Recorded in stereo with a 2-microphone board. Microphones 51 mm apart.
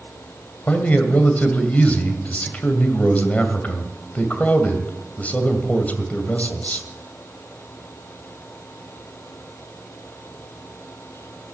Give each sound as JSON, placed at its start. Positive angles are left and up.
{"t": 0.7, "sound": "a man speaking", "side_deg": 30, "distance_m": 1.9}